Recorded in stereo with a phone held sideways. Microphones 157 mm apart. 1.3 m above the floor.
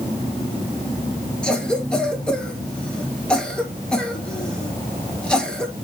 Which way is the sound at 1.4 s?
5° left (ahead or behind).